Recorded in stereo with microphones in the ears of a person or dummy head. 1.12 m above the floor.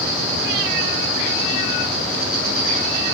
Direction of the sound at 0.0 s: 45° right (ahead or behind).